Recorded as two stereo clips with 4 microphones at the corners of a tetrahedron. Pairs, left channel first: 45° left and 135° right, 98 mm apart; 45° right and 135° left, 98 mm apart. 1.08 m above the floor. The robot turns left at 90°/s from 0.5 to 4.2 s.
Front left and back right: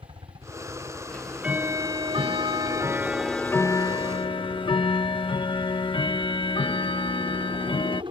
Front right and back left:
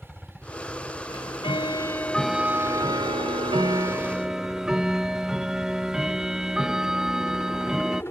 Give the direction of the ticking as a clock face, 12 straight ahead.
1 o'clock.